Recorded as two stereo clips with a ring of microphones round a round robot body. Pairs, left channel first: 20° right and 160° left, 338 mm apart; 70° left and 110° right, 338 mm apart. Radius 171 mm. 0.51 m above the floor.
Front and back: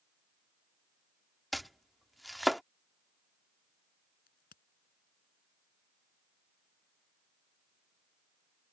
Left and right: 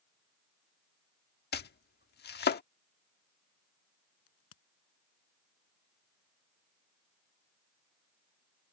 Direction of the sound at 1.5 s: 70° left.